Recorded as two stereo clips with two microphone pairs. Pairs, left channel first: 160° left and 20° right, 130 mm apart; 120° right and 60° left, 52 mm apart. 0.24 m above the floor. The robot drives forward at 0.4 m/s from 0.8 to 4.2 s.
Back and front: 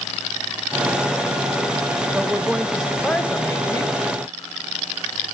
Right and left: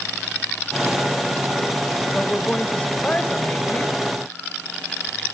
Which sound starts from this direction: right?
A woman speaking, at 2.1 s.